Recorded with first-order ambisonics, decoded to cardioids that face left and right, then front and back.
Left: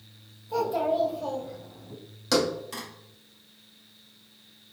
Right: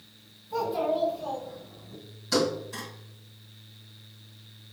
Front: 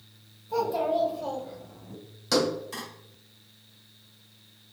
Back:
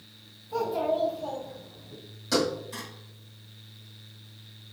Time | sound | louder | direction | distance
0.5 | a child speaking | left 1 dB, front 1 dB | 60° left | 2.0 m
2.3 | a thud | left 1 dB, front 1 dB | 70° left | 2.0 m